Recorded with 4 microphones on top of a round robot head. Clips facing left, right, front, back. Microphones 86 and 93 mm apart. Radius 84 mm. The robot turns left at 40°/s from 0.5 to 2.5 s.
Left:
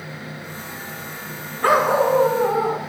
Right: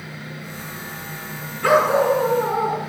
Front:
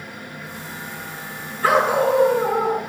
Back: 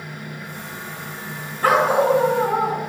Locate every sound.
1.6 s a dog barking: 140° left, 5.5 m; by 2.8 s 105° left, 5.5 m